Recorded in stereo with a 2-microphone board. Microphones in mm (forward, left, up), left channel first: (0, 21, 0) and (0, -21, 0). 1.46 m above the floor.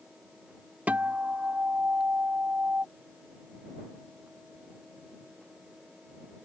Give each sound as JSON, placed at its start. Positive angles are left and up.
{"t": 0.9, "sound": "a guitar", "side_deg": -40}